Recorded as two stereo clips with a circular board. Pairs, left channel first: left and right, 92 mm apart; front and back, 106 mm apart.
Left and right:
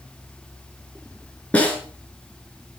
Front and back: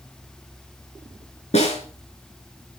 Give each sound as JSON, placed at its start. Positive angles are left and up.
{"t": 1.5, "sound": "a snare drum", "azimuth_deg": 15, "distance_m": 6.0}